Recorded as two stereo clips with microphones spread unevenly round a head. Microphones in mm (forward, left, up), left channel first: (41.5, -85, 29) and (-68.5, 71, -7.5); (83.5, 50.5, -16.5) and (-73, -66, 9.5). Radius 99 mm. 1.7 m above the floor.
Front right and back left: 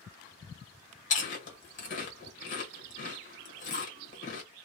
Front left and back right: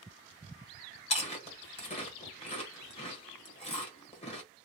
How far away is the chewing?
About 1.3 m.